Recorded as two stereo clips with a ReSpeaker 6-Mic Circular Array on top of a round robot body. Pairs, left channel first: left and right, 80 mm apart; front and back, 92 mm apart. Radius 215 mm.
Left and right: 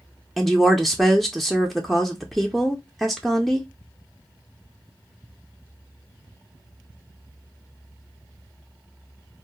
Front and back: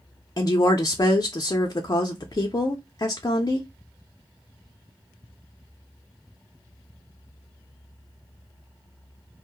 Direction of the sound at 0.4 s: Straight ahead.